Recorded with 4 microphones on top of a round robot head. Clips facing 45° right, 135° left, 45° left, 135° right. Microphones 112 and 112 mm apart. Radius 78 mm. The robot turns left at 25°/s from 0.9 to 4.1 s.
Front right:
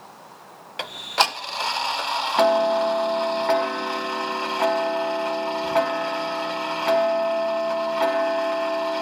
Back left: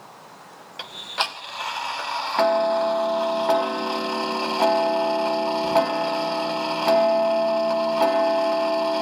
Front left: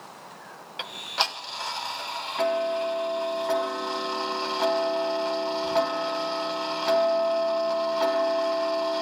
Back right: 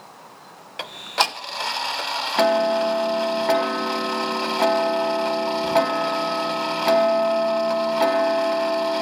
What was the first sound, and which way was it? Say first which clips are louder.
Ticking: front right 6 dB, back right 6 dB; 85° right.